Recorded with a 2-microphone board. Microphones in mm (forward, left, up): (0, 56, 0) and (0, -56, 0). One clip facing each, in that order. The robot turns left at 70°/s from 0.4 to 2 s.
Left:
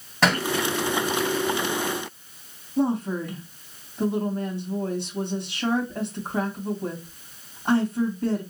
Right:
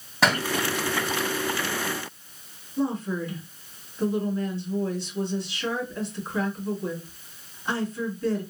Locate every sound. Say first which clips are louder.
0.2 s a thud: left 1 dB; 5° right (ahead or behind), 2.5 m; by 0.5 s centre (ahead or behind), 2.5 m
2.8 s a woman speaking: left 3 dB; 55° left (ahead or behind), 1.9 m